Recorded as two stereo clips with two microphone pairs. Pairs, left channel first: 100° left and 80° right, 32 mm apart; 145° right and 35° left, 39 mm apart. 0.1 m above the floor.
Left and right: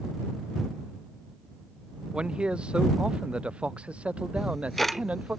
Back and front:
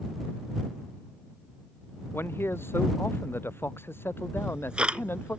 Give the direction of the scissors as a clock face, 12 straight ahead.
No scissors in this recording.